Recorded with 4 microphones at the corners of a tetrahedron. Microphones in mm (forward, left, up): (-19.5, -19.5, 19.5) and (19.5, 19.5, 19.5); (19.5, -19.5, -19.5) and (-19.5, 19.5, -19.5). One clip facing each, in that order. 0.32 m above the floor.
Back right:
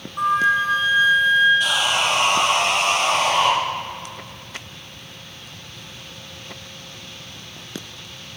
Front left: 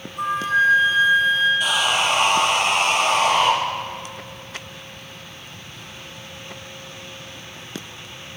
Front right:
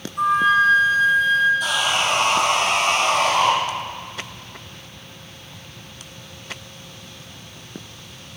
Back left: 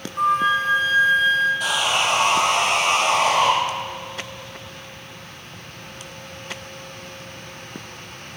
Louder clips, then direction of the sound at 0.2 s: Back right 1 dB, front right 3 dB; 170° right.